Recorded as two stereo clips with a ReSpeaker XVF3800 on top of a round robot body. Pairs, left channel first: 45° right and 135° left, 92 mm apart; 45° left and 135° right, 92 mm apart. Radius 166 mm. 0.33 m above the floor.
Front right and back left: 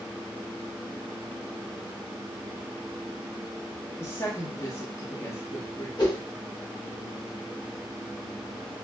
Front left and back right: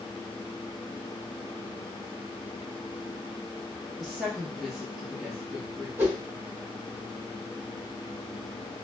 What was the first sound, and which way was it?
A woman speaking, 45° right.